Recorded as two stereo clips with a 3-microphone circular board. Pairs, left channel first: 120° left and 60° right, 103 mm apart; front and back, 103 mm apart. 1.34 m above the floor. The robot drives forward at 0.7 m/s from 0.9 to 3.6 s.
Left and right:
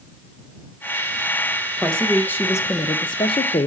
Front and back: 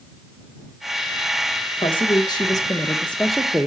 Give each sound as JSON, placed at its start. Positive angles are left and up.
{"t": 1.8, "sound": "a woman speaking", "azimuth_deg": 35, "distance_m": 1.4}